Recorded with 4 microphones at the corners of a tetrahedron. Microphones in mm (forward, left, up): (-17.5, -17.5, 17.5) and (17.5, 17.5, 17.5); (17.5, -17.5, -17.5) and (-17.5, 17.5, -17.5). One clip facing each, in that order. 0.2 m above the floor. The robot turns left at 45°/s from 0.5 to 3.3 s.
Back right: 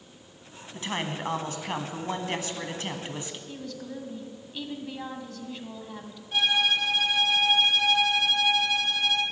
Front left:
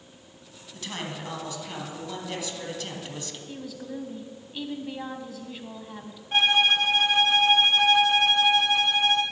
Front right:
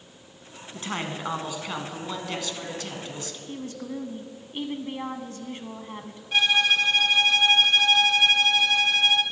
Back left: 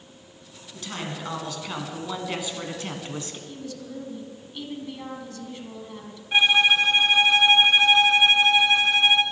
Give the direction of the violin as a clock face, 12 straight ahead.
10 o'clock.